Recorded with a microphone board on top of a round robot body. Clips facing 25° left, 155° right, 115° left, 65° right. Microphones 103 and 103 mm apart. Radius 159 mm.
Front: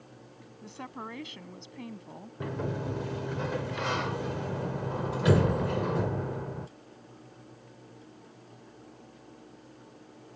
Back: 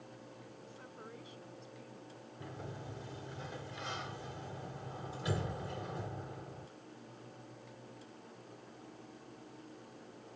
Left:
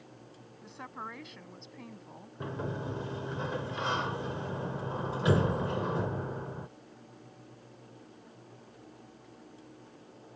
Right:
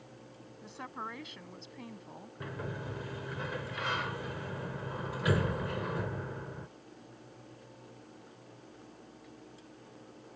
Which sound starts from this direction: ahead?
A woman speaking, at 0.6 s.